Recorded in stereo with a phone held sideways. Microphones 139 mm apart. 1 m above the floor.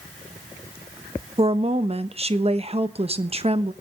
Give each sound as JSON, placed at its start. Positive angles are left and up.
{"t": 1.4, "sound": "a woman speaking", "side_deg": -45, "distance_m": 1.1}